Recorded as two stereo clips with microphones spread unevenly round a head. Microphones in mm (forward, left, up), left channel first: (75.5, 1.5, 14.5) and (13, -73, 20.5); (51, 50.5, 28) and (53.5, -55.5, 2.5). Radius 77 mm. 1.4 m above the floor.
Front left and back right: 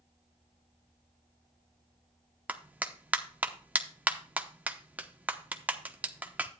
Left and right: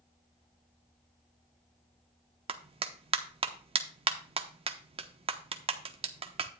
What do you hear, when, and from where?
2.5 s a clap: 55° right, 1.0 m